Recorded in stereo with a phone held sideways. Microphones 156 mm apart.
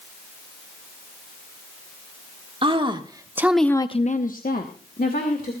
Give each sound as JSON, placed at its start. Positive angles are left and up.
{"t": 2.6, "sound": "a woman speaking", "side_deg": -35, "distance_m": 1.7}